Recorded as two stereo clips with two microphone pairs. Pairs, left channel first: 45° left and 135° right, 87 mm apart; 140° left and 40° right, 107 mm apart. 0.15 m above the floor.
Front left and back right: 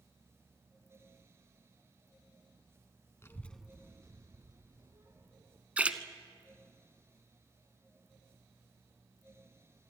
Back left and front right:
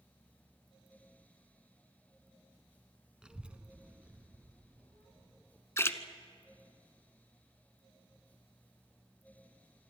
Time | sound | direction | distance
3.2 | a child speaking | 35° left | 1.0 m
5.8 | a splash | 170° left | 0.9 m